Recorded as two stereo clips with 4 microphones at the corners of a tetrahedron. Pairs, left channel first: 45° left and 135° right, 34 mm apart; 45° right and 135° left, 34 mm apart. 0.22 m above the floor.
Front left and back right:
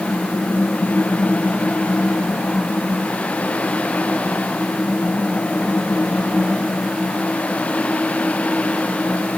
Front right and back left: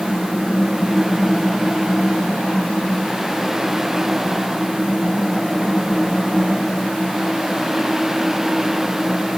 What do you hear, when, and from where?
Only background noise.